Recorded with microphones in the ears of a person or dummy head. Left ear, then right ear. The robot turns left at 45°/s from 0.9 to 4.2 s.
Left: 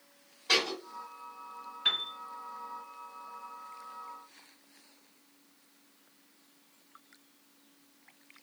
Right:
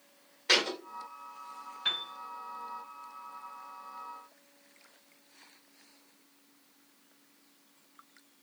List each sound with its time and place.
0.5 s a thud: 45° right (ahead or behind), 1.7 m
1.9 s a piano: 15° left (ahead or behind), 1.0 m; by 2.1 s 25° left (ahead or behind), 1.0 m